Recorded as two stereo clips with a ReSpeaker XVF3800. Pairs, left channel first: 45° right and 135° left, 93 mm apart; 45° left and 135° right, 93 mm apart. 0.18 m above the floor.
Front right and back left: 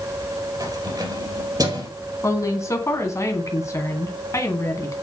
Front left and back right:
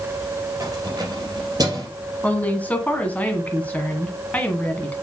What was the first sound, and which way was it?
Keys jangling, straight behind.